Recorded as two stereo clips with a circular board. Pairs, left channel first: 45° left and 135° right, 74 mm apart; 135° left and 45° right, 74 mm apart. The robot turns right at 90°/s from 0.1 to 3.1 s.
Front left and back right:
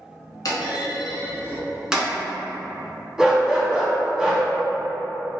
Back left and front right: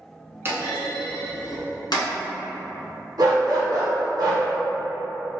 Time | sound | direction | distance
0.5 | a clunk | 10° left | 1.0 m
3.2 | a dog barking | 55° right | 1.0 m